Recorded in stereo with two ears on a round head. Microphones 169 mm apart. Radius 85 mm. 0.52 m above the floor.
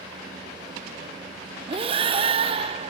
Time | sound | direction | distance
1.7 | breathing | 30° right (ahead or behind) | 0.8 m